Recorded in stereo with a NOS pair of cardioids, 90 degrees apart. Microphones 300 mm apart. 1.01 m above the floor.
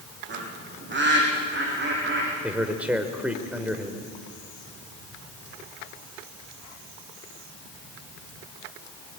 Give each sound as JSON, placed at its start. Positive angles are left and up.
{"t": 0.3, "sound": "a bird", "azimuth_deg": -40, "distance_m": 9.0}
{"t": 2.4, "sound": "a man speaking", "azimuth_deg": -5, "distance_m": 4.0}